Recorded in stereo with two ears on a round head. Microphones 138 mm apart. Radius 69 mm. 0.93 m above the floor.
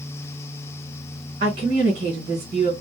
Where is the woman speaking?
45° right (ahead or behind), 1.2 m.